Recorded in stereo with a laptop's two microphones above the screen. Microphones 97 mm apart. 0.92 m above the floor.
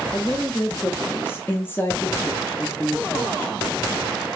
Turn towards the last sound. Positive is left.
turn(degrees=20)  # may be behind; listen again after turning